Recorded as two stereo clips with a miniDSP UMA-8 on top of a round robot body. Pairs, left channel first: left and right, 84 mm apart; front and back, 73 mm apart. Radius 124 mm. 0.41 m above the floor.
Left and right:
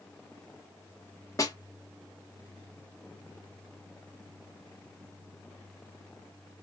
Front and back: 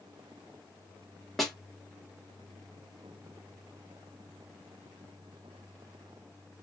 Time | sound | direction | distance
1.4 | a snare drum | 95° left | 1.6 m